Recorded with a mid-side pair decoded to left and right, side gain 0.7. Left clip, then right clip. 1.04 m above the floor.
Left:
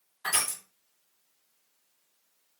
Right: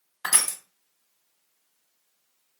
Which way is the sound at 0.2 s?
50° right.